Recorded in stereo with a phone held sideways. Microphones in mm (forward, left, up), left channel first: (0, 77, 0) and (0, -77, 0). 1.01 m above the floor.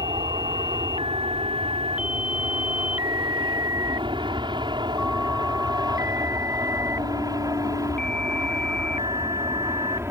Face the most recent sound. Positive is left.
turn(degrees=-20)  # may be behind; listen again after turning